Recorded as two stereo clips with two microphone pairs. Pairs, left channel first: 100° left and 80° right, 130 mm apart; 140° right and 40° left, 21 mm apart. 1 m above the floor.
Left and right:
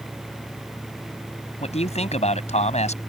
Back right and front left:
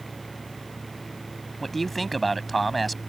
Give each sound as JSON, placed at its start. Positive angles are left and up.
{"t": 1.6, "sound": "a man speaking", "azimuth_deg": 135}